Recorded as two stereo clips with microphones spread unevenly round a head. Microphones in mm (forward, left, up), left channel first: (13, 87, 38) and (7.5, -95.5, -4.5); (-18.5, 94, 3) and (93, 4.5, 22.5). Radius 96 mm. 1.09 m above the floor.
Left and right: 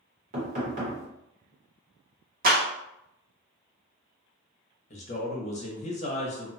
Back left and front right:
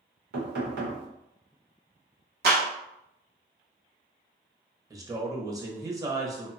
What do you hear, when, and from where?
0.3 s knocking: 45° right, 1.1 m
2.4 s a clap: 60° right, 0.9 m
4.9 s a man speaking: 30° left, 0.9 m